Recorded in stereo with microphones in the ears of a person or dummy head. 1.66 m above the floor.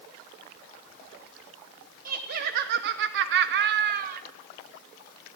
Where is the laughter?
50° right (ahead or behind), 1.2 m.